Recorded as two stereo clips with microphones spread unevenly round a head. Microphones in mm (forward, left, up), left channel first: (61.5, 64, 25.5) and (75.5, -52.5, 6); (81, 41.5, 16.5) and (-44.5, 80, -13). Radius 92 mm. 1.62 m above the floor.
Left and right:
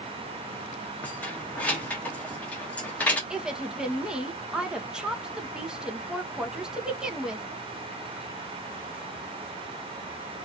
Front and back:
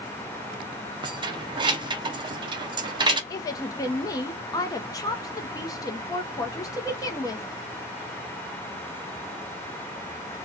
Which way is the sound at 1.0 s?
130° left.